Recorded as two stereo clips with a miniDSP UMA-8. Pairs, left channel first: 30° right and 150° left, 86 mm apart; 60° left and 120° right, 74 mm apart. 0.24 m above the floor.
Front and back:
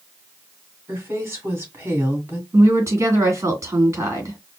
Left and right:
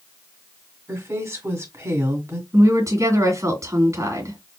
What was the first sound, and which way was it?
A woman speaking, 155° right.